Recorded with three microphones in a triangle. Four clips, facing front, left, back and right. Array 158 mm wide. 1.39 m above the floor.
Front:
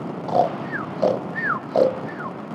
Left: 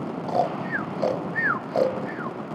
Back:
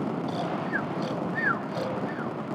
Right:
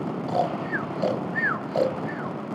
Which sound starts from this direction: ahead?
Snoring, at 0.3 s.